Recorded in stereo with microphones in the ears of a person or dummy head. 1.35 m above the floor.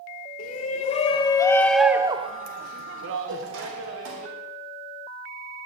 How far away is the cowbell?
About 5 m.